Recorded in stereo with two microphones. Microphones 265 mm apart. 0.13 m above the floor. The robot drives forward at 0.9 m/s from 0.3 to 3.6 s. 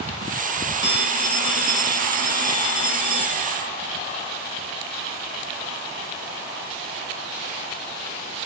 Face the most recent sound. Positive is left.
turn(degrees=20)  # may be behind; listen again after turning